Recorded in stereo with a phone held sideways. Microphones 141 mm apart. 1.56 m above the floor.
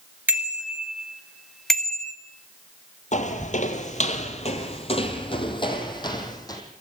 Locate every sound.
0.3 s a bicycle bell: 10° right (ahead or behind), 2.5 m; by 2.1 s 10° left (ahead or behind), 1.7 m
3.1 s footsteps: 60° left (ahead or behind), 3 m; by 6.6 s 25° left (ahead or behind), 4.5 m